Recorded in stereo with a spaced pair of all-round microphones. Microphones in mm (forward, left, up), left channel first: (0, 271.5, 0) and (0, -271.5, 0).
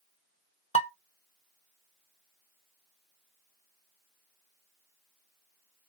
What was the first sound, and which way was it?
Dishes clattering, 15° left (ahead or behind).